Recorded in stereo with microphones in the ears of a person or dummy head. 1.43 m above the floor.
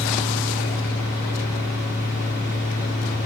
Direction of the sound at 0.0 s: 40° left (ahead or behind).